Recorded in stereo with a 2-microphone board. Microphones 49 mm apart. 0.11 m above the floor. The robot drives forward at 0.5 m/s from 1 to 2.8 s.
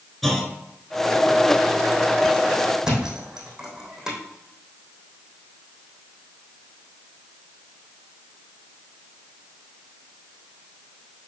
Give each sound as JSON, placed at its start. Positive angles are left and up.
{"t": 0.2, "sound": "a clunk", "side_deg": 5, "distance_m": 1.3}
{"t": 2.8, "sound": "a thud", "side_deg": -10, "distance_m": 3.0}